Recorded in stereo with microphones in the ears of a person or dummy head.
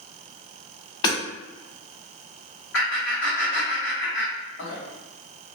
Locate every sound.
1.0 s hammering: 30° left (ahead or behind), 1.2 m
2.7 s laughter: 65° left (ahead or behind), 1.4 m